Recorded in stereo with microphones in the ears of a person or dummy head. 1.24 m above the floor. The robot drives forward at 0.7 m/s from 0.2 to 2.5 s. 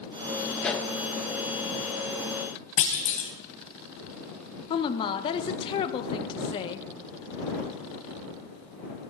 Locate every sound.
0.6 s a pop: centre (ahead or behind), 1.0 m
2.8 s a clunk: 40° left (ahead or behind), 1.4 m
4.7 s a woman speaking: 25° left (ahead or behind), 0.9 m